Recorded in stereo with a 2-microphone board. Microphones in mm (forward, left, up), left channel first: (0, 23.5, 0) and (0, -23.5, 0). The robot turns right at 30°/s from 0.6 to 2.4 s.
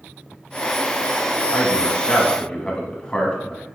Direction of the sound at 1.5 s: 10° left (ahead or behind).